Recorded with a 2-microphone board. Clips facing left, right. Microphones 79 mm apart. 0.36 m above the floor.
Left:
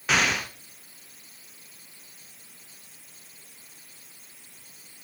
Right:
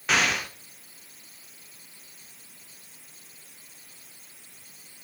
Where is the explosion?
Centre (ahead or behind), 1.3 m.